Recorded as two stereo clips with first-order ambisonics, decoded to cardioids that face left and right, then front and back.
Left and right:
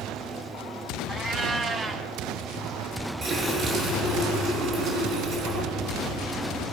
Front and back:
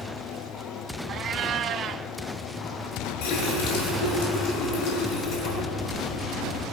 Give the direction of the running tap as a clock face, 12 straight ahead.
1 o'clock.